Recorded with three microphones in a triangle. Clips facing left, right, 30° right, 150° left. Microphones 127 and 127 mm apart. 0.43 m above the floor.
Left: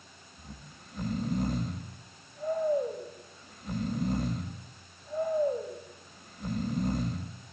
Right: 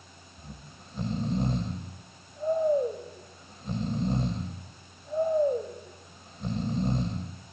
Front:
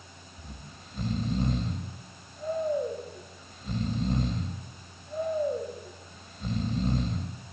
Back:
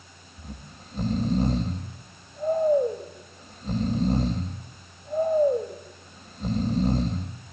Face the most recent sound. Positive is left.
turn(degrees=-150)